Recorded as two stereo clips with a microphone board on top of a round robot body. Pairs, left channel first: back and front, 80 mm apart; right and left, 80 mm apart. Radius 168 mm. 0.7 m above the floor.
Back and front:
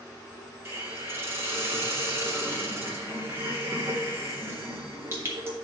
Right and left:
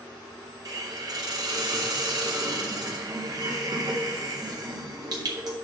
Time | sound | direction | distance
0.7 | a hiss | 55° left | 3 m